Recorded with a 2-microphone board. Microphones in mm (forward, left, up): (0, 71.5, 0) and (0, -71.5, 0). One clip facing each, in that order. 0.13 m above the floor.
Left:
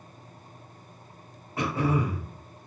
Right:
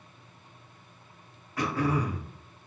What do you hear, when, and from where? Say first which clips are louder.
1.6 s throat clearing: left 1 dB; 25° left (ahead or behind), 0.9 m